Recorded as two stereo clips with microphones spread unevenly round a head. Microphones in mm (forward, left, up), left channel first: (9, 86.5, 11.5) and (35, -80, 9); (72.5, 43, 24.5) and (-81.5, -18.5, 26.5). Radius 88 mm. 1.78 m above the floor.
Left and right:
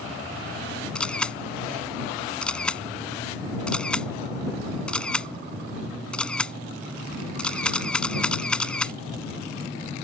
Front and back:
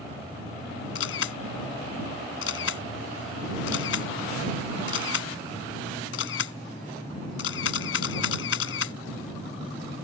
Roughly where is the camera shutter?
Ahead.